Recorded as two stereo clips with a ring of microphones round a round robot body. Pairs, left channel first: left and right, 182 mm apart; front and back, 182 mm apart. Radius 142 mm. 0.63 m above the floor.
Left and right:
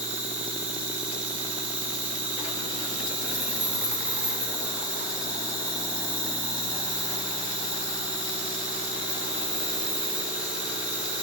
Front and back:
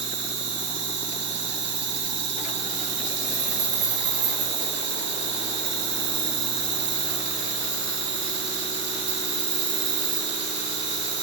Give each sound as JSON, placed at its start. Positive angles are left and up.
{"t": 0.0, "sound": "an insect", "azimuth_deg": -175, "distance_m": 3.5}